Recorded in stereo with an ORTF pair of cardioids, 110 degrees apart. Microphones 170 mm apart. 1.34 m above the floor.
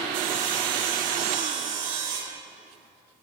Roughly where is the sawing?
Ahead right.